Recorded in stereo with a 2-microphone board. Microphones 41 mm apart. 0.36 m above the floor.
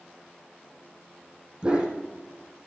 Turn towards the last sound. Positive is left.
turn(degrees=-20)  # may be behind; listen again after turning